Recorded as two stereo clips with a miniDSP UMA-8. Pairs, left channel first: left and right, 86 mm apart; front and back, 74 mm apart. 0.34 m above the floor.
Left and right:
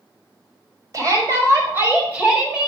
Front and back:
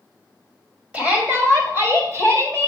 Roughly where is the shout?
Behind right.